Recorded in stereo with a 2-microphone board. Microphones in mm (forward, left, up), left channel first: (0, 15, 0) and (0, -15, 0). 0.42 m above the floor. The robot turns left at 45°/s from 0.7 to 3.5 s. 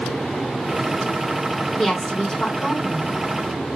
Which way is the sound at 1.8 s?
160° left.